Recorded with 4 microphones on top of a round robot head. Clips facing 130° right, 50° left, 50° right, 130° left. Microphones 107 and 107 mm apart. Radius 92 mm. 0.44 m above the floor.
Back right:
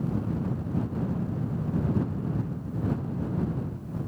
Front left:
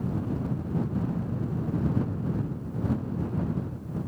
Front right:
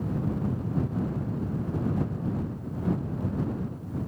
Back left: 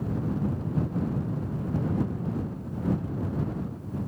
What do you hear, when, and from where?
Only background noise.